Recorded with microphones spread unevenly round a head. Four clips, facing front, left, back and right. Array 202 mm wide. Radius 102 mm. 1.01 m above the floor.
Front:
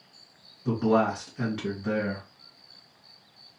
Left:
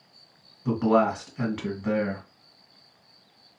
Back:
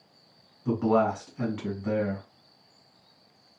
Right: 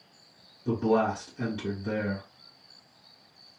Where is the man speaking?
80° left, 1.7 m.